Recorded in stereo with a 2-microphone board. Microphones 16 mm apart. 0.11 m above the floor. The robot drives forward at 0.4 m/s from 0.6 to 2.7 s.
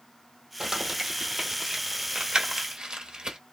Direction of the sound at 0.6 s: 35° right (ahead or behind).